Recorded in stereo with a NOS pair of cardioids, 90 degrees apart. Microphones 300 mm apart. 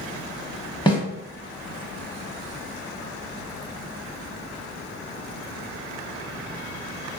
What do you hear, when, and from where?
0.9 s a snare drum: 15° left, 0.9 m